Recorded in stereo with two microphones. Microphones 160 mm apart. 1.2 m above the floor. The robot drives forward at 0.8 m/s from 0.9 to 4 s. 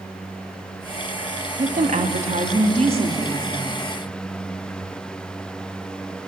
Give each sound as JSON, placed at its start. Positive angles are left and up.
{"t": 1.6, "sound": "a woman speaking", "side_deg": -60, "distance_m": 1.7}